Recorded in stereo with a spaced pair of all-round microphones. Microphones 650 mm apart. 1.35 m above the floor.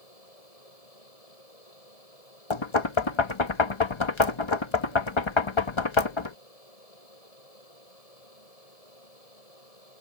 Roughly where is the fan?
Left.